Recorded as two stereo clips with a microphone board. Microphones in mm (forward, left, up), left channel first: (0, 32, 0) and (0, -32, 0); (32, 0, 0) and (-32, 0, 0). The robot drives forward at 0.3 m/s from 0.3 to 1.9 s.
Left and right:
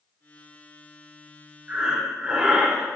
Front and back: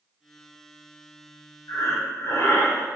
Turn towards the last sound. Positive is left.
turn(degrees=-15)